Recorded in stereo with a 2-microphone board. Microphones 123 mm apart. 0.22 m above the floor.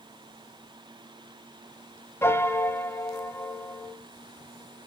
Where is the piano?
20° left (ahead or behind), 0.7 m.